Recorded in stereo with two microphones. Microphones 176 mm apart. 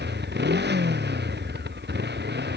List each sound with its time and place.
0.0 s a motorcycle: 75° right (ahead or behind)